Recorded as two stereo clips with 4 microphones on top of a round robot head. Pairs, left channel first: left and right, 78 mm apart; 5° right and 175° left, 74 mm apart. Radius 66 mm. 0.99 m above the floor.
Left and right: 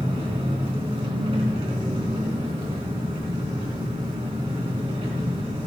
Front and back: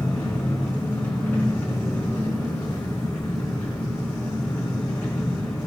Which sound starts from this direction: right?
An engine running, at 0.0 s.